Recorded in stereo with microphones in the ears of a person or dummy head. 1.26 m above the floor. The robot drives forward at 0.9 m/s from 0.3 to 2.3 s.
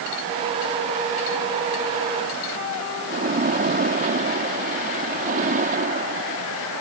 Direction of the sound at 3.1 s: 40° right (ahead or behind).